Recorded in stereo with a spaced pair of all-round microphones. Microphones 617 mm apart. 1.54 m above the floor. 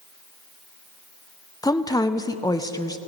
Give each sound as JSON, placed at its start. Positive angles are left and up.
{"t": 1.6, "sound": "a woman speaking", "side_deg": 5, "distance_m": 0.5}